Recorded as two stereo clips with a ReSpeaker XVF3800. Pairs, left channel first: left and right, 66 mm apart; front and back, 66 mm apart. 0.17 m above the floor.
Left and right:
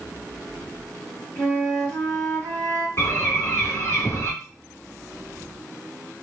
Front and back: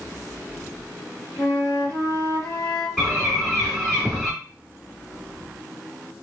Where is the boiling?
I don't hear boiling.